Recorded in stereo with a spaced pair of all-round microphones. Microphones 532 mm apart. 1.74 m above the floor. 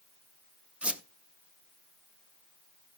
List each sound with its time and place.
0.8 s a squeak: centre (ahead or behind), 0.8 m